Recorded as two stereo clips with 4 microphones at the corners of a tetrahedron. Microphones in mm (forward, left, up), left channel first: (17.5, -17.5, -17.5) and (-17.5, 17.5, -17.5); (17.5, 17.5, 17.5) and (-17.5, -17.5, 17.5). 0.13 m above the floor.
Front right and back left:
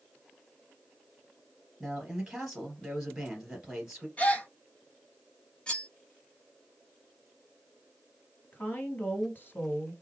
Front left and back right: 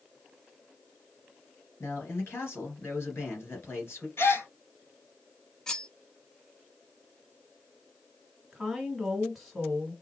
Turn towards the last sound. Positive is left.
turn(degrees=-45)